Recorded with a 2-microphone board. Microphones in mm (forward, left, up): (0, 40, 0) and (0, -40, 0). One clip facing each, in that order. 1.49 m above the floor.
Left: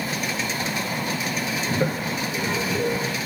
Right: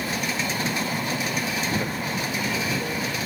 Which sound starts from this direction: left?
A toilet flushing, at 1.7 s.